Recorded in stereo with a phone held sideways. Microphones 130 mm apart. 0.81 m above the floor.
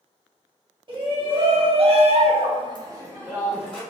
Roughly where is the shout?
Right.